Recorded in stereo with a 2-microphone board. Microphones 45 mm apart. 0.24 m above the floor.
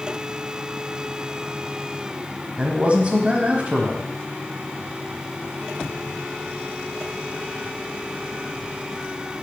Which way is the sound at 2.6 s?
30° right (ahead or behind).